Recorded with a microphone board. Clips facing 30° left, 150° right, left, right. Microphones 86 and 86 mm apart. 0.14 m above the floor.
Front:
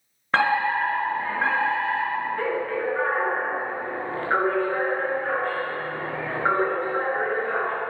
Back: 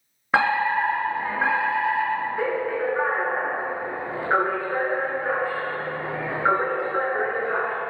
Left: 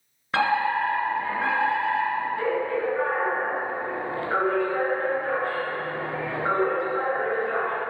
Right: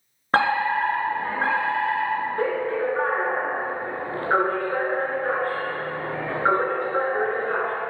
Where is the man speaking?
I don't hear a man speaking.